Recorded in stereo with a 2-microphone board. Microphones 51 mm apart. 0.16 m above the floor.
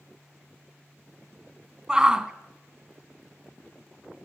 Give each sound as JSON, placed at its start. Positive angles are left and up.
{"t": 1.9, "sound": "a shout", "side_deg": -15, "distance_m": 1.0}